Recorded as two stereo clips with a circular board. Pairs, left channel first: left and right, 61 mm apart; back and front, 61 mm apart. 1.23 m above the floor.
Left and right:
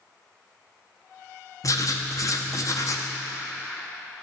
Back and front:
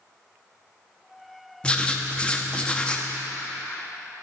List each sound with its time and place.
1.6 s writing: 110° left, 0.8 m